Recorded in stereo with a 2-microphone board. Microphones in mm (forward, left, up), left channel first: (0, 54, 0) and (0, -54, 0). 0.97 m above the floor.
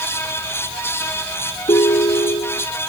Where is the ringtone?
65° left (ahead or behind).